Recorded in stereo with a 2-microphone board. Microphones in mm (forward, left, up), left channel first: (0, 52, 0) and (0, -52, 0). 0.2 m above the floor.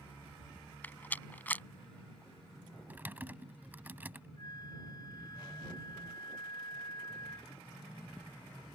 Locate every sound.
0.8 s a rattle: 15° left (ahead or behind)
2.9 s typing on a keyboard: 20° right (ahead or behind)
4.4 s a flute: 40° left (ahead or behind)